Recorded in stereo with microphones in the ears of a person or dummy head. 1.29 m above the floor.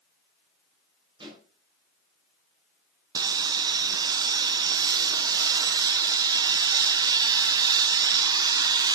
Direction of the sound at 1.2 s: 25° right (ahead or behind).